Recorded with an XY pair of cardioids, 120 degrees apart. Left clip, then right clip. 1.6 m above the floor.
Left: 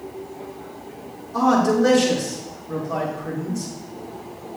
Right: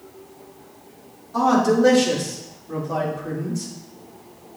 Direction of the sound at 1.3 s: 10° right.